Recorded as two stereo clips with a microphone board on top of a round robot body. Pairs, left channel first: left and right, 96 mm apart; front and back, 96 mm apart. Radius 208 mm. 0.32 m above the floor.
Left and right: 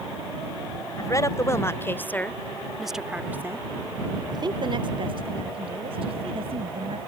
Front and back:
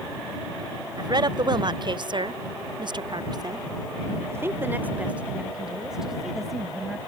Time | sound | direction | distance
1.0 | a woman speaking | 140° left | ?